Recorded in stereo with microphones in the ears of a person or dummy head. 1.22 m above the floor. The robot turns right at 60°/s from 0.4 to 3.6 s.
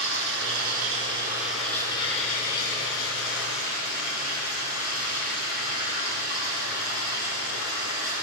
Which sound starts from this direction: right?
Running water, at 0.0 s.